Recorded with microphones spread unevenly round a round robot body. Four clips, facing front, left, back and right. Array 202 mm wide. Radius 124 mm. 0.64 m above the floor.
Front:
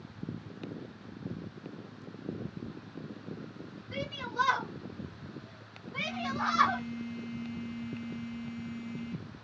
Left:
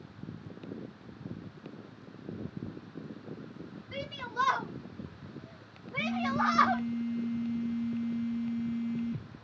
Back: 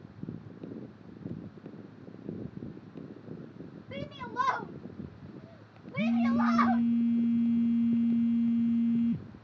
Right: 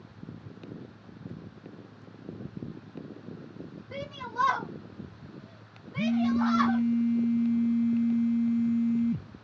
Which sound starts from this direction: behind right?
A shout, at 3.9 s.